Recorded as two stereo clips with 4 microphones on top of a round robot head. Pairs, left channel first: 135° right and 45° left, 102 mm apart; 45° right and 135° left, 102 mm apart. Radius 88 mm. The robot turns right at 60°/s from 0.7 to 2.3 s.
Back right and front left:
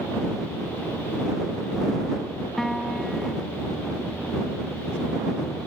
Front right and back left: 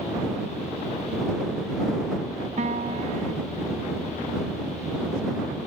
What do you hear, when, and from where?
2.6 s a piano: 140° left